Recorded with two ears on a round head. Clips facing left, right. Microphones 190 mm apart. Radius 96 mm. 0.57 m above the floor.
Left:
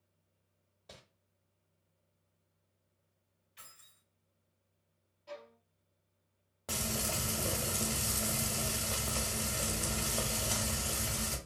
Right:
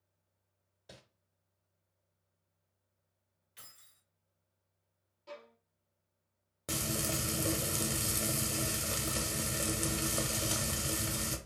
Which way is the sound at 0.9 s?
10° right (ahead or behind).